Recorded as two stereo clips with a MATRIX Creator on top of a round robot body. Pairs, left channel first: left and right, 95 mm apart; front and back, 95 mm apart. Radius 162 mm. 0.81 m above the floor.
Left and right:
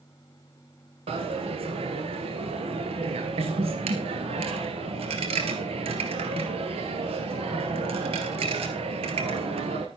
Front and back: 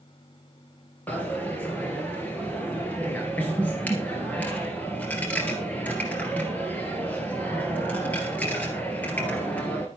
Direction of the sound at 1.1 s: 75° right.